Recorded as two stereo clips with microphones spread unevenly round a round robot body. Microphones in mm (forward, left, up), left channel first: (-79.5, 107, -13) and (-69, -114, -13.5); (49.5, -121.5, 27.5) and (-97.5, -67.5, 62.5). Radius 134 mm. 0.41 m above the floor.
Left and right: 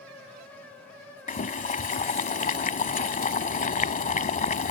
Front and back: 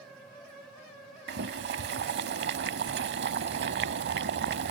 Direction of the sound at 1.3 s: 150° left.